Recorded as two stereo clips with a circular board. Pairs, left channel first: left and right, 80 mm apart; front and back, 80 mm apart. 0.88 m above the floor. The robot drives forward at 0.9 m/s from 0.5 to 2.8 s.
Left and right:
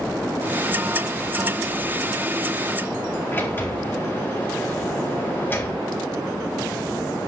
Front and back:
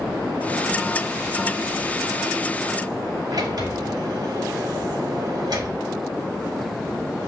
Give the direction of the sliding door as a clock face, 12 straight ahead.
7 o'clock.